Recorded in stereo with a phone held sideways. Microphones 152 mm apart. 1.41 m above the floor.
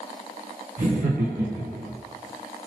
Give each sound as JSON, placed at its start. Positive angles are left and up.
{"t": 0.8, "sound": "laughter", "side_deg": -65, "distance_m": 1.0}